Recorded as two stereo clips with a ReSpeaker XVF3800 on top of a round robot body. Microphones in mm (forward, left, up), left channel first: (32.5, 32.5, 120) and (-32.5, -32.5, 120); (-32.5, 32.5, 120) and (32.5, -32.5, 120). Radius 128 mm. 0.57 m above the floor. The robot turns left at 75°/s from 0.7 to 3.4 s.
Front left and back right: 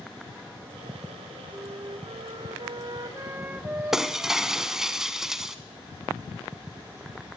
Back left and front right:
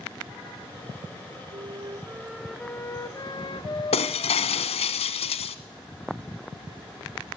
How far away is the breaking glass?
About 1.1 m.